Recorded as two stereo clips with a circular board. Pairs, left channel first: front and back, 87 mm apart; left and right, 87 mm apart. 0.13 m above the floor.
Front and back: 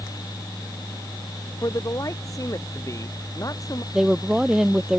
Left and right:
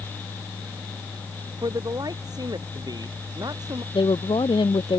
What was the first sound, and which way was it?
A man speaking, 50° right.